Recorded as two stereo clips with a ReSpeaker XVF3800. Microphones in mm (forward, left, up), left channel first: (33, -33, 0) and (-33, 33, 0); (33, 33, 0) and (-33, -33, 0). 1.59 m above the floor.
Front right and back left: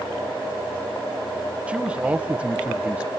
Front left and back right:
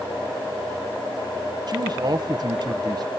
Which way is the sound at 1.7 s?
150° right.